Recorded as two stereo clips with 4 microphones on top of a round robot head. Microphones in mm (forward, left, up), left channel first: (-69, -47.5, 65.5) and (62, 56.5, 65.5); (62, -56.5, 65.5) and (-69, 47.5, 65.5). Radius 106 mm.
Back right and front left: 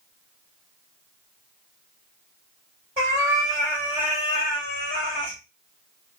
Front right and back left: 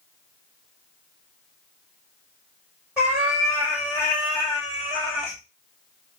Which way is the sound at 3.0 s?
65° left.